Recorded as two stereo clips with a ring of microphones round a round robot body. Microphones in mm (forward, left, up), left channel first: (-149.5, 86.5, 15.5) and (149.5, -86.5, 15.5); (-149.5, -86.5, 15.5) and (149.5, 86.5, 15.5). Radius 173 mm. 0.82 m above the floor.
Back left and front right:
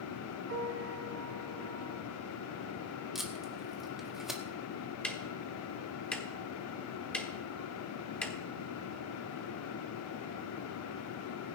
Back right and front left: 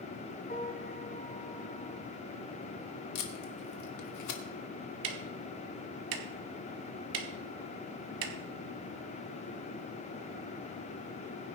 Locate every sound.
0.5 s a piano: 85° right, 1.9 m
3.1 s tape being pulled: 120° right, 1.7 m
5.0 s ticking: 65° left, 1.3 m